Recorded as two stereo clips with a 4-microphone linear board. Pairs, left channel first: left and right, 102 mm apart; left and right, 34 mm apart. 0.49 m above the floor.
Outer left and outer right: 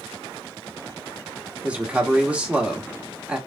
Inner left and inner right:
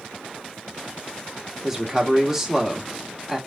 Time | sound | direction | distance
1.6 | a man speaking | 10° right (ahead or behind) | 1.2 m